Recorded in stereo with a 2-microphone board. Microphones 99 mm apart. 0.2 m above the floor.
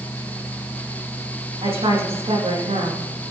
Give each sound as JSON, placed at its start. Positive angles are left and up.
{"t": 1.6, "sound": "a woman speaking", "side_deg": -80, "distance_m": 8.0}